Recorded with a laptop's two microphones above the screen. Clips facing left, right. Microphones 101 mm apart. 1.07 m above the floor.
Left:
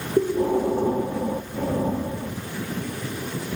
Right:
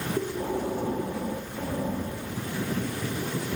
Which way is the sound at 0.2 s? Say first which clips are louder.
Left 11 dB; 30° left (ahead or behind).